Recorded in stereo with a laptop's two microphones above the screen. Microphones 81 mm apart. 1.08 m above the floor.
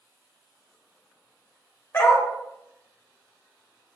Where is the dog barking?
30° left (ahead or behind), 1.2 m.